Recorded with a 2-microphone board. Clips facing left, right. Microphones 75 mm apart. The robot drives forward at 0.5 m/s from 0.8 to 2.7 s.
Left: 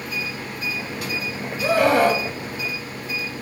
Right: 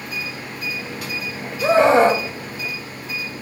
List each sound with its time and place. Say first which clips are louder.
1.6 s a scream: right 4 dB; 25° right (ahead or behind), 1.2 m